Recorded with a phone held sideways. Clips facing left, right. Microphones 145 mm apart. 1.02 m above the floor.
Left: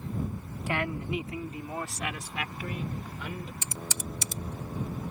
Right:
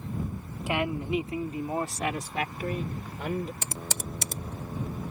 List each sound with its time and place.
0.7 s a woman speaking: 15° right (ahead or behind); by 3.5 s 50° right (ahead or behind)
3.6 s typing on a keyboard: 55° right (ahead or behind)